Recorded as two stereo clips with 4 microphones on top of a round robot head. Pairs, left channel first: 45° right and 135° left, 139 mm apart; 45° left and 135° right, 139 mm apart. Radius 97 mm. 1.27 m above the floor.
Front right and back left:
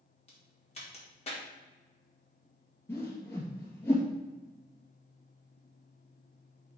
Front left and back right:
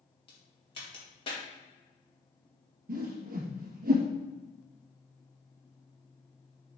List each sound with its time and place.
0.3 s a crack: 5° right, 2.5 m
2.9 s a whoosh: 120° right, 2 m